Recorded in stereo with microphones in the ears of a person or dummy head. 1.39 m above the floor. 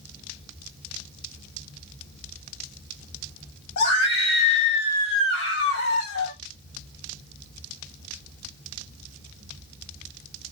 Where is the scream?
60° left (ahead or behind), 1.0 m.